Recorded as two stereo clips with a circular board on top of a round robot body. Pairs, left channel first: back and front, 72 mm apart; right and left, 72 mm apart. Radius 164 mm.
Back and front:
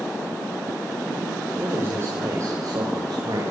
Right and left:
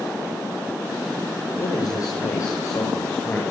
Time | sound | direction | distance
1.6 | a man speaking | 60° right | 4 m